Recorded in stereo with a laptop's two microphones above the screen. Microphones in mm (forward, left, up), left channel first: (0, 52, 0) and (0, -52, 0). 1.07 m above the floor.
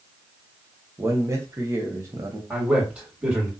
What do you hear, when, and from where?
1.0 s a man speaking: 30° right (ahead or behind), 0.9 m
2.5 s a man speaking: 15° right (ahead or behind), 1.9 m